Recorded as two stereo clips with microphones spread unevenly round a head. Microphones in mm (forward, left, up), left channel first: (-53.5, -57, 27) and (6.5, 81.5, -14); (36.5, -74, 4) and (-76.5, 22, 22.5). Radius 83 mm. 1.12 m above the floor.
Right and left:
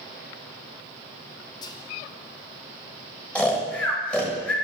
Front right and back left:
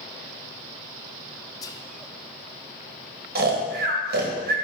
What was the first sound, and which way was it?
Whispering, 45° right.